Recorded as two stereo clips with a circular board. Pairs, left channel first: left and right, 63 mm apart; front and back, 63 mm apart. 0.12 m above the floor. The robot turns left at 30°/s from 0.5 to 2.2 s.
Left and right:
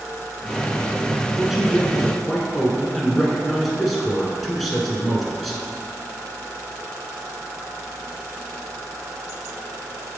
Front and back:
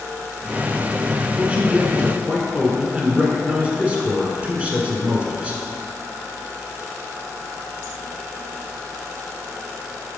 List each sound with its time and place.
1.4 s a man speaking: 165° right, 1.3 m; by 5.6 s 170° left, 1.3 m